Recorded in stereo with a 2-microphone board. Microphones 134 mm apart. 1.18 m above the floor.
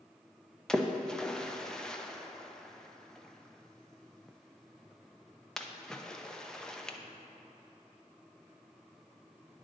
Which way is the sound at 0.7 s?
5° left (ahead or behind).